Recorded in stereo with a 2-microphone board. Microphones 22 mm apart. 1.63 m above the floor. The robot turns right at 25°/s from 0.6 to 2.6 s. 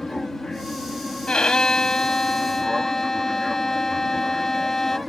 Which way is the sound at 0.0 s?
155° left.